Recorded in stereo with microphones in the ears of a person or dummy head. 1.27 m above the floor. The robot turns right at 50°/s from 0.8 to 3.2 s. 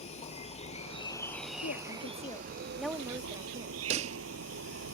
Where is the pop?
40° right (ahead or behind).